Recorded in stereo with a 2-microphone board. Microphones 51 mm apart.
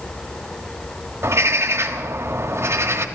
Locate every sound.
1.2 s a bird: 60° right (ahead or behind), 1.3 m